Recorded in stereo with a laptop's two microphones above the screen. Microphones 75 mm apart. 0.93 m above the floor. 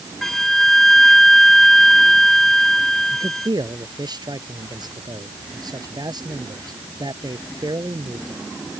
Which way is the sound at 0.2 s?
5° left (ahead or behind).